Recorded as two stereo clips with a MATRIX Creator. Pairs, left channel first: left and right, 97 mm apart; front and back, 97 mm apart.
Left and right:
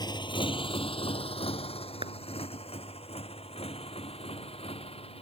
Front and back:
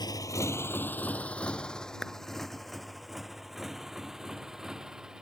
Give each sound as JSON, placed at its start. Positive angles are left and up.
{"t": 0.0, "sound": "a motorcycle", "azimuth_deg": 45}
{"t": 2.0, "sound": "a clap", "azimuth_deg": -90}